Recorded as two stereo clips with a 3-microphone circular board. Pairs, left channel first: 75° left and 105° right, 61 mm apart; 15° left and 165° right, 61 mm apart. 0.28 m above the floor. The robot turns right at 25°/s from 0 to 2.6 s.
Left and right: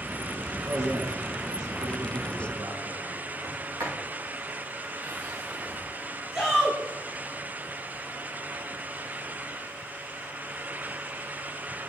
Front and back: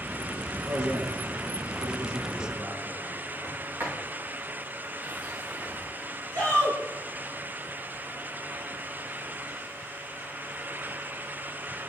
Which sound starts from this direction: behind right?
A sliding door, at 3.4 s.